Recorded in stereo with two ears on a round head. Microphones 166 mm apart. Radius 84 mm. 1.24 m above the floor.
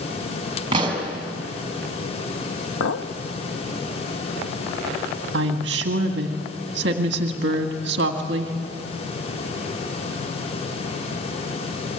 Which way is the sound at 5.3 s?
60° right (ahead or behind).